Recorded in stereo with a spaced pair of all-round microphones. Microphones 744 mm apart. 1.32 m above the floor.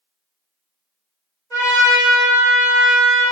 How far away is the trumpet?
About 1.5 m.